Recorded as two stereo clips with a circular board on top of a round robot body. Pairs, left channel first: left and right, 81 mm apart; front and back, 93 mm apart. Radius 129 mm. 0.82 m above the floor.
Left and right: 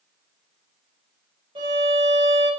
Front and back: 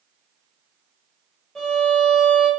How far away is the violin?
About 0.8 m.